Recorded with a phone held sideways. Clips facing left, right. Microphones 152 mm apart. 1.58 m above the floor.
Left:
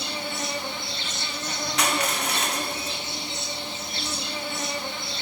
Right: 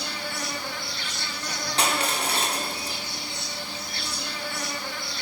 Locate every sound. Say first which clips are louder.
0.0 s an insect: left 2 dB; 20° left (ahead or behind), 1.1 m
1.8 s crushing: even; 30° right (ahead or behind), 1.8 m